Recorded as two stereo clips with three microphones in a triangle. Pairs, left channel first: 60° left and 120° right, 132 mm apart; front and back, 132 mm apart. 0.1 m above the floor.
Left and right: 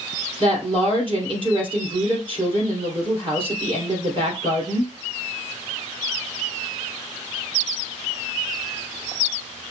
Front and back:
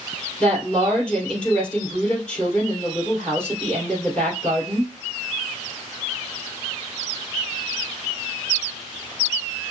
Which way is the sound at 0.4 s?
80° right.